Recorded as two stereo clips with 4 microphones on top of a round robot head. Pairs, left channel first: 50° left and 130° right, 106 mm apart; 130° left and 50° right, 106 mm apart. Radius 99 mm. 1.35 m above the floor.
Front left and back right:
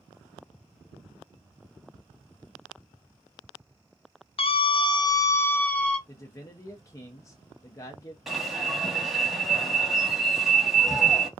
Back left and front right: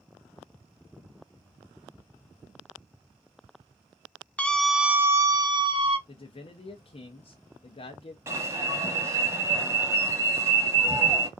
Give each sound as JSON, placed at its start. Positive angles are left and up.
{"t": 4.4, "sound": "a scream", "azimuth_deg": 50, "distance_m": 0.7}
{"t": 6.1, "sound": "a man speaking", "azimuth_deg": 110, "distance_m": 0.5}
{"t": 8.3, "sound": "an alarm", "azimuth_deg": -45, "distance_m": 1.0}